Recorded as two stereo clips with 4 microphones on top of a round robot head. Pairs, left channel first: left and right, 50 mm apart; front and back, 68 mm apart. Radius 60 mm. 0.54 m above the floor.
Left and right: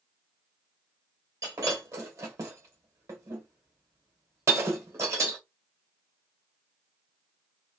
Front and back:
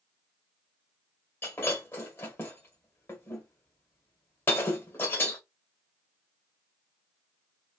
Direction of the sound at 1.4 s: 60° right.